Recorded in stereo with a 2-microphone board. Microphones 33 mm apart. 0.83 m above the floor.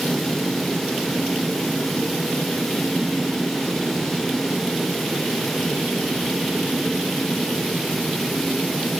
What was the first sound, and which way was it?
Only background noise.